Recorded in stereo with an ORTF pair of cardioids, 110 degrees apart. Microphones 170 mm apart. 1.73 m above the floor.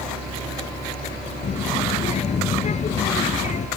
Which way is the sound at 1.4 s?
40° left.